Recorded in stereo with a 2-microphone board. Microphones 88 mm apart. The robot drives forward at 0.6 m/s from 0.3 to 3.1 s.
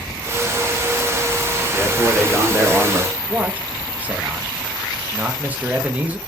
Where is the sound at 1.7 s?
10° right (ahead or behind), 1.1 m; by 3.2 s 5° right (ahead or behind), 1.9 m.